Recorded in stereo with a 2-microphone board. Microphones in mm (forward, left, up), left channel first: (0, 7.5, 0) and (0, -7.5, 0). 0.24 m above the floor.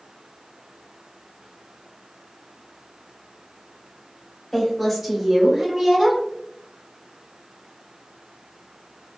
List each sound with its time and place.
4.5 s a woman speaking: 15° left (ahead or behind), 1.3 m; by 6.2 s 30° right (ahead or behind), 1.4 m